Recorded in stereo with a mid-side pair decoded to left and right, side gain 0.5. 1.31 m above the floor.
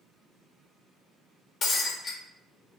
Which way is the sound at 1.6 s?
60° left.